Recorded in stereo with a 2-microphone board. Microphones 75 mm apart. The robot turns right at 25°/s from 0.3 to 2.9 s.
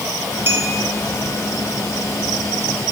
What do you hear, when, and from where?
0.5 s a clink: 30° right (ahead or behind), 2.5 m; by 0.7 s 35° right (ahead or behind), 2.5 m